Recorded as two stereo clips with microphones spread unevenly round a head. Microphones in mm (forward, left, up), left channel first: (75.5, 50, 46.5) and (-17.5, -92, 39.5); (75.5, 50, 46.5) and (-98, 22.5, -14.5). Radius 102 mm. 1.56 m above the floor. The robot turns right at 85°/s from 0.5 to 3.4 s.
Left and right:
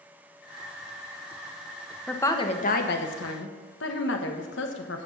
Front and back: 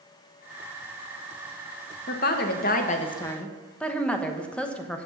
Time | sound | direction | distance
2.1 | a woman speaking | 30° right | 1.2 m